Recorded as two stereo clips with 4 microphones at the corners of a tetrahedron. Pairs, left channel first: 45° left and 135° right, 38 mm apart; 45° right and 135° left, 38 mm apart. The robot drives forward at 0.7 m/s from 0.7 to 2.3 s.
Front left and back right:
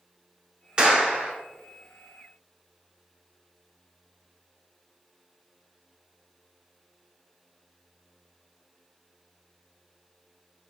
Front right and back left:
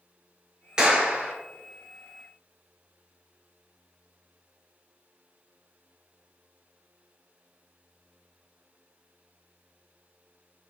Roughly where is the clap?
Behind.